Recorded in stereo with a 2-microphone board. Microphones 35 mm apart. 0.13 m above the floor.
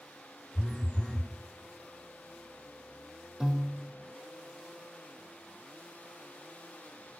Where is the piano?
15° right (ahead or behind), 1.2 m.